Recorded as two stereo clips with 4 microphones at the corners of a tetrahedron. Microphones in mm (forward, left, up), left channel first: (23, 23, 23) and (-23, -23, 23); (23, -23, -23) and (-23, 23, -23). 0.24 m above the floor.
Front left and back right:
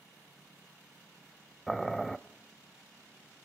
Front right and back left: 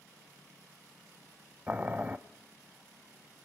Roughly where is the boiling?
Behind left.